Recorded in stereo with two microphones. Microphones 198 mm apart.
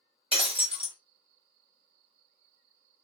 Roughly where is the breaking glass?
Right.